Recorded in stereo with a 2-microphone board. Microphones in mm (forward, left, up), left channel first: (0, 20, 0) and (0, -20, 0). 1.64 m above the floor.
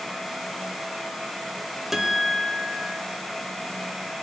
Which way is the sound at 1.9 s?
10° right (ahead or behind).